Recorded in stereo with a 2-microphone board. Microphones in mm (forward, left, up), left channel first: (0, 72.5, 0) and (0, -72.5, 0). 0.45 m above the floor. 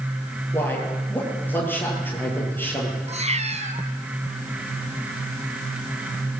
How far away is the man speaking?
About 10 m.